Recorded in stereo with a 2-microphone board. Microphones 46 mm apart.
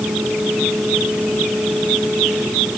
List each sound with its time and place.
Only background noise.